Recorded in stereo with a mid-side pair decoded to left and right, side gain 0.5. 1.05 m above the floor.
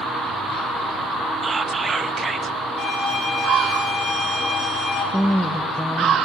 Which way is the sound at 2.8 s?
70° left.